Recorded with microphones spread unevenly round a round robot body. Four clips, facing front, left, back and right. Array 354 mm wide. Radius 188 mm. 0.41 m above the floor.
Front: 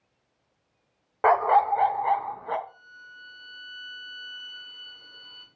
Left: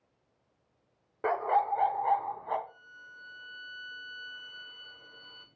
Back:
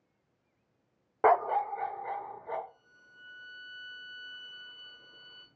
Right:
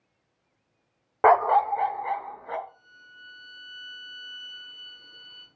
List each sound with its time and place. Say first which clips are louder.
1.2 s a dog barking: right 9 dB, front 6 dB; 70° right, 0.6 m; by 2.6 s straight ahead, 2 m
2.7 s a violin: even, front 10 dB; 70° left, 5 m